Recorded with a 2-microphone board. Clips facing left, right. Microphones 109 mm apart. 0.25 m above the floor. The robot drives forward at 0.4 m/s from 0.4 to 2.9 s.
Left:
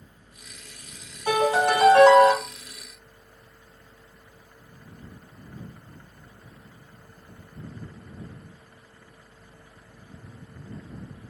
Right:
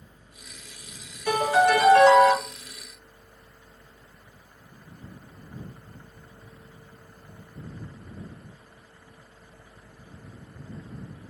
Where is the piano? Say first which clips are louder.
Right 1 dB; 50° left (ahead or behind), 2 m.